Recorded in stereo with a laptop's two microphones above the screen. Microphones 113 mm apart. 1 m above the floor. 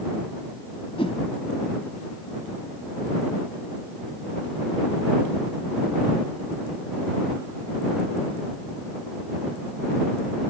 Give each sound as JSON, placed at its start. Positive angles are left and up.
{"t": 1.0, "sound": "a whoosh", "side_deg": 55}